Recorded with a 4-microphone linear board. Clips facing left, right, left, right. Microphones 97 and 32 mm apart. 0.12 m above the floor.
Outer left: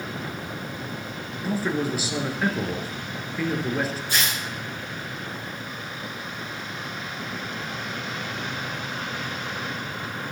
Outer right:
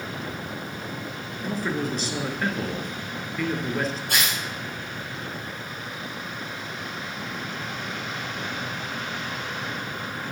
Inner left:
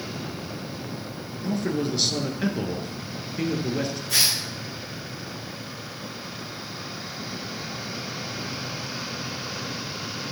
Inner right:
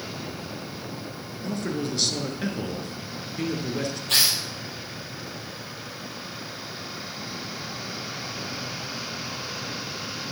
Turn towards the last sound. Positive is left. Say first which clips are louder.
# even, inner right 1 dB
turn(degrees=-65)  # may be behind; listen again after turning